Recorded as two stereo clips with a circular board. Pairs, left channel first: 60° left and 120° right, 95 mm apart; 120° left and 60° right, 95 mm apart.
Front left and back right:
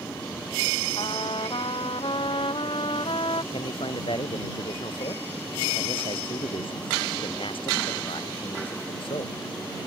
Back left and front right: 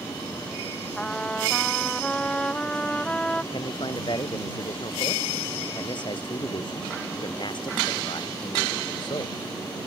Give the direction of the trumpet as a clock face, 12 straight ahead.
11 o'clock.